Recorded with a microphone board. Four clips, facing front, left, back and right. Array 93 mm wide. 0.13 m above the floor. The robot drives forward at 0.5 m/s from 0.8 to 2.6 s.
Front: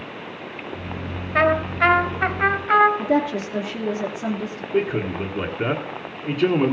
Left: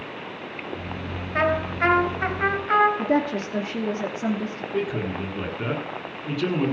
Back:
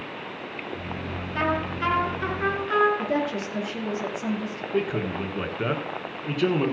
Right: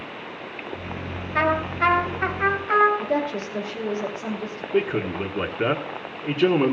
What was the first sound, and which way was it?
A trumpet, 10° left.